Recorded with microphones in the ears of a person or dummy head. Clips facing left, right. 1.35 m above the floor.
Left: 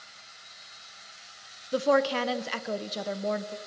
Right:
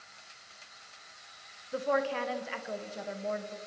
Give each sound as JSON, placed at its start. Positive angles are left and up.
{"t": 1.7, "sound": "a woman speaking", "side_deg": 45, "distance_m": 1.0}